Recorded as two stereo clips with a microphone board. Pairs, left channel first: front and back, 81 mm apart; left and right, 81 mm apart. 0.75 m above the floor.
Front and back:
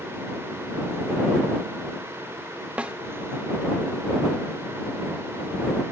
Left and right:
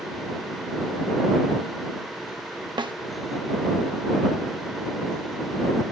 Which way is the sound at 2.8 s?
105° right.